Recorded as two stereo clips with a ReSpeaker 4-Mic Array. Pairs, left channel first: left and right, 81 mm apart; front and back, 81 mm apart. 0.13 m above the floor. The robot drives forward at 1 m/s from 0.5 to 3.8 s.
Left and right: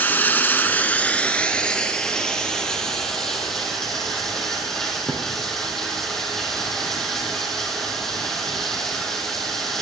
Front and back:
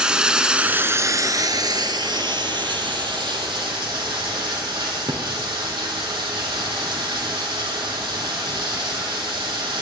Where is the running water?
115° left, 1.0 m; by 9.8 s 175° left, 3.5 m.